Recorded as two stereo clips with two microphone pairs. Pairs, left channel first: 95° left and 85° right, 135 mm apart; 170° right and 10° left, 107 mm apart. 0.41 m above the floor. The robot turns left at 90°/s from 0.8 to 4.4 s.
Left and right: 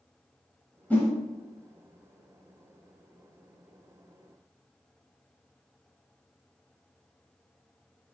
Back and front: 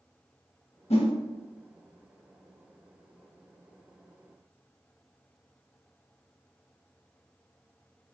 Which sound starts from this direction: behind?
A whoosh, at 0.9 s.